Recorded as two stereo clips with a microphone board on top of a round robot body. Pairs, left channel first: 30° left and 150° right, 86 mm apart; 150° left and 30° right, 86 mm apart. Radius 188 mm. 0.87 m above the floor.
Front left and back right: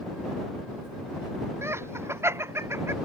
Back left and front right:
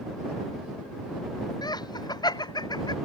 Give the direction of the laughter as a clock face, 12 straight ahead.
7 o'clock.